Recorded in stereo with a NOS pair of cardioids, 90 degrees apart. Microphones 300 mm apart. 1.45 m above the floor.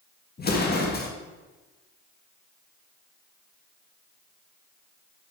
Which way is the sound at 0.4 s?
30° left.